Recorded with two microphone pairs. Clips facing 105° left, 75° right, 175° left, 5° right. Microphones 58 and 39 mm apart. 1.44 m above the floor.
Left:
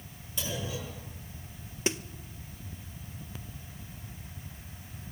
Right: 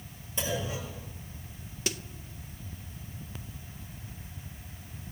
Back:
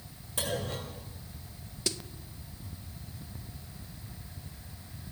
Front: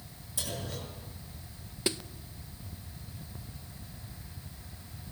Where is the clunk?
140° right, 8 m.